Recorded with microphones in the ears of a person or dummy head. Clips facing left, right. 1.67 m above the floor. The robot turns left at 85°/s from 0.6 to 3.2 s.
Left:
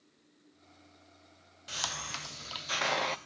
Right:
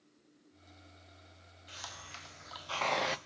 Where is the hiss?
110° left, 1.0 m; by 3.2 s 15° right, 1.0 m.